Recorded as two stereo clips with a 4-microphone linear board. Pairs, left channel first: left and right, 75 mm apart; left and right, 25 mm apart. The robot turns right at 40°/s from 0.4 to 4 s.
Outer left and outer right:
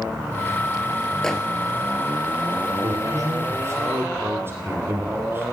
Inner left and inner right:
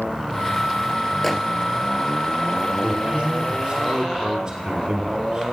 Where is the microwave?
5° left (ahead or behind), 1.6 m; by 1.4 s 10° left (ahead or behind), 1.6 m.